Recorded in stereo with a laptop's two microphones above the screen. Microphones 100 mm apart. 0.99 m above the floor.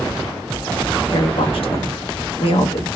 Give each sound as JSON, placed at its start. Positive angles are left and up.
{"t": 1.1, "sound": "a woman speaking", "side_deg": 65, "distance_m": 1.1}